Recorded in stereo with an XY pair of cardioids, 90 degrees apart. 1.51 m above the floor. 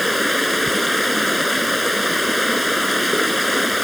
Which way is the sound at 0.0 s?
Straight ahead.